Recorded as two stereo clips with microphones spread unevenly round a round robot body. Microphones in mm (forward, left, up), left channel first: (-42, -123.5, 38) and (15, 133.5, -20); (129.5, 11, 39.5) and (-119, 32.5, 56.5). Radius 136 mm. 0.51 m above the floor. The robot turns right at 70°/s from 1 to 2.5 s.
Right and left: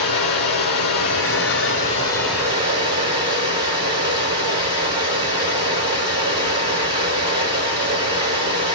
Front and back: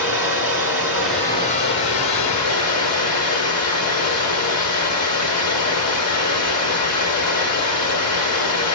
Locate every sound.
0.0 s running water: 100° right, 3.5 m; by 8.8 s 5° left, 3.5 m